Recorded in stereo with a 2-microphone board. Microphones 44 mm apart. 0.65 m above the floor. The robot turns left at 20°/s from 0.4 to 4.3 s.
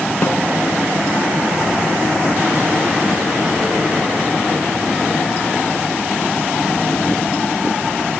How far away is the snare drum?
About 3 m.